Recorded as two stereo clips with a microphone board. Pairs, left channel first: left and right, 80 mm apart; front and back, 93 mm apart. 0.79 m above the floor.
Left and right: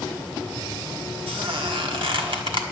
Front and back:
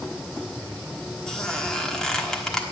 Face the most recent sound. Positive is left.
turn(degrees=-85)